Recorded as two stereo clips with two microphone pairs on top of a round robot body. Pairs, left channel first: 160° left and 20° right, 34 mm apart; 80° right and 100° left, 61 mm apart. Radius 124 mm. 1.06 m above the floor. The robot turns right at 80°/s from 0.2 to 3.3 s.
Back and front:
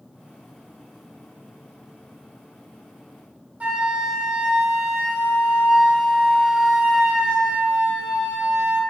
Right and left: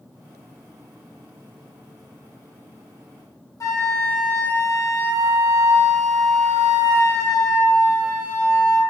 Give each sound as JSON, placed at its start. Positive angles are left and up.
{"t": 3.6, "sound": "a flute", "azimuth_deg": -60, "distance_m": 0.9}